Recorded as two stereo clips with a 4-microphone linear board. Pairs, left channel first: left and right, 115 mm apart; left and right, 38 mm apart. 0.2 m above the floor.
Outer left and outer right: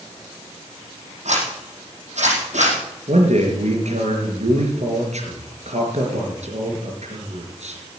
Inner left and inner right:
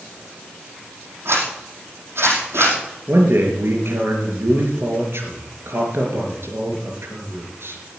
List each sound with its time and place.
1.2 s a zipper: 70° right (ahead or behind), 5 m
3.1 s a man speaking: 70° right (ahead or behind), 4 m